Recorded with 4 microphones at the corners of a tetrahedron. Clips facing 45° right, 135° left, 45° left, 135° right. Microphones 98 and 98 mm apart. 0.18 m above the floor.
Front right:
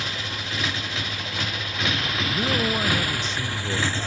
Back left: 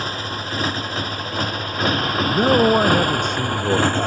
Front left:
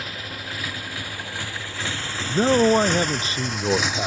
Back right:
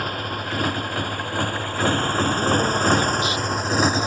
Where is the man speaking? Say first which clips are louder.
Back left 11 dB, front left 6 dB; 95° left.